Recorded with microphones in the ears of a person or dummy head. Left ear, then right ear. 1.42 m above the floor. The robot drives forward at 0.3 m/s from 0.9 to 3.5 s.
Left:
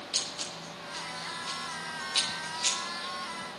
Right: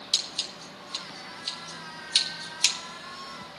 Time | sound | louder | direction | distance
0.1 | scissors | right 5 dB | 75° right (ahead or behind) | 3.5 m